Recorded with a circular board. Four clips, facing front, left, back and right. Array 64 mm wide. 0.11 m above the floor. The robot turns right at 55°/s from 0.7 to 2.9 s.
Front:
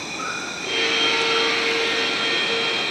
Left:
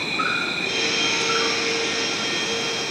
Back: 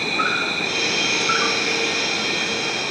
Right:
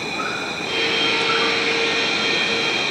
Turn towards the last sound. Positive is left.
turn(degrees=-80)